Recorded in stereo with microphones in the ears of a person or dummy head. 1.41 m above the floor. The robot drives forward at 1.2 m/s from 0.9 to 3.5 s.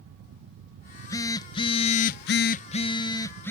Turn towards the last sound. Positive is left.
turn(degrees=15)  # may be behind; listen again after turning